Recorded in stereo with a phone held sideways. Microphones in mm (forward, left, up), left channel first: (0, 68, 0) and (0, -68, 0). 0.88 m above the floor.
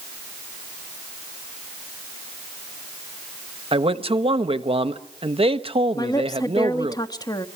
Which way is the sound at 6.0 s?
30° left (ahead or behind).